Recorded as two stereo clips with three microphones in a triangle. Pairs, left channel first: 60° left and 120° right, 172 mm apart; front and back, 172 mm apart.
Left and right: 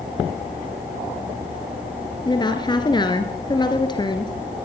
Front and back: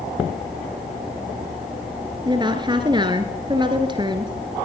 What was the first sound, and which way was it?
A woman speaking, 120° left.